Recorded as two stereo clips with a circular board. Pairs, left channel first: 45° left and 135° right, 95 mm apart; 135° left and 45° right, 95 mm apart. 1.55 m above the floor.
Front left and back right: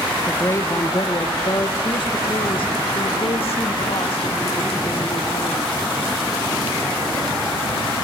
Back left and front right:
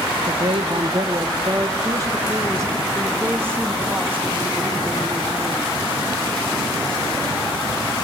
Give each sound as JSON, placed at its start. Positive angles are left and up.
{"t": 0.3, "sound": "a woman speaking", "azimuth_deg": -25, "distance_m": 1.1}